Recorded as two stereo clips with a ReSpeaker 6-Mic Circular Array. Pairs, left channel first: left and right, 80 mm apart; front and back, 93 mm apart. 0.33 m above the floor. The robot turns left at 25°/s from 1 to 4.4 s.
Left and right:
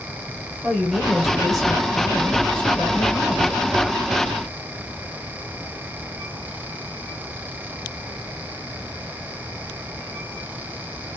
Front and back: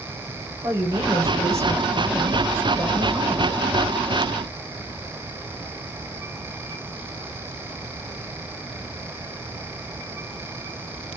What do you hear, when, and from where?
0.6 s a woman speaking: 170° right, 0.9 m; by 3.5 s 125° left, 0.9 m